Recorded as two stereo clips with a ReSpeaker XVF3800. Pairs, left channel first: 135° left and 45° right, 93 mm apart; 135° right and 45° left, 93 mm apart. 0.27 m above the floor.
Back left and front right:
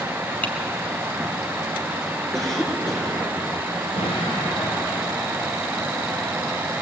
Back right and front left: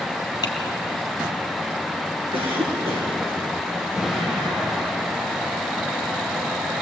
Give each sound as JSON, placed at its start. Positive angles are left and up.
{"t": 0.4, "sound": "typing on a keyboard", "azimuth_deg": -155, "distance_m": 2.0}
{"t": 2.3, "sound": "a cough", "azimuth_deg": 50, "distance_m": 5.5}
{"t": 4.0, "sound": "an explosion", "azimuth_deg": 125, "distance_m": 7.5}